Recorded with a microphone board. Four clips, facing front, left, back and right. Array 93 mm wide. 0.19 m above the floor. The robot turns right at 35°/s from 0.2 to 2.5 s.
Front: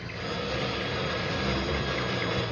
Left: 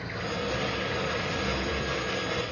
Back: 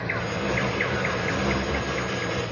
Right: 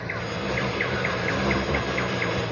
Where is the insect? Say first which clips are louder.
Right 2 dB, back 6 dB; 160° right, 6.5 m; by 2.5 s 80° right, 6.5 m.